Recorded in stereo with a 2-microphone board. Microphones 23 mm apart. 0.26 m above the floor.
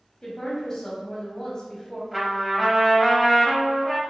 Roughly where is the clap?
I don't hear a clap.